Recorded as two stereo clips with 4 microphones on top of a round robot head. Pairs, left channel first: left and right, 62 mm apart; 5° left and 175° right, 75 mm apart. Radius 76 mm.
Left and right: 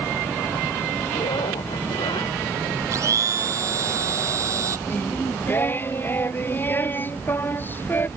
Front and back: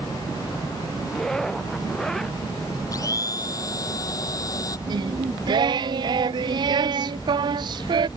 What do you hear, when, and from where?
1.1 s a zipper: 90° left
2.9 s a blender: 50° right
4.9 s singing: 155° left